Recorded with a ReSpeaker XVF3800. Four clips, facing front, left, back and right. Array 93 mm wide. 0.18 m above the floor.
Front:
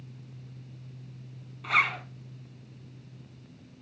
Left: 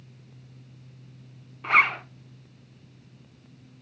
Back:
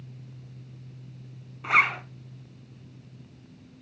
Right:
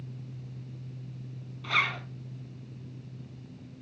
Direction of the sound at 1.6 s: 120° left.